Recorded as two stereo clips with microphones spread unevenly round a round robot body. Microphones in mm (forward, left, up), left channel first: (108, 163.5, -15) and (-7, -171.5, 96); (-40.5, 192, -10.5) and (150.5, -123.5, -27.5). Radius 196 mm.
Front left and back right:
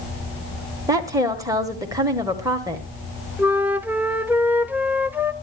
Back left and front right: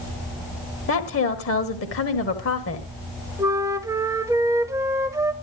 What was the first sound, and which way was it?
A woman speaking, 150° left.